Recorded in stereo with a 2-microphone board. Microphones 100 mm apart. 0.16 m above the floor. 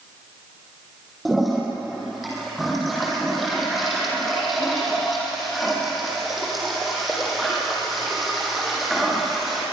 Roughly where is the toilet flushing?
Centre.